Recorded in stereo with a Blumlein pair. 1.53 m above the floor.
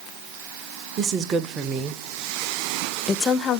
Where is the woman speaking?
30° right, 1.6 m; by 3.6 s 35° left, 0.6 m.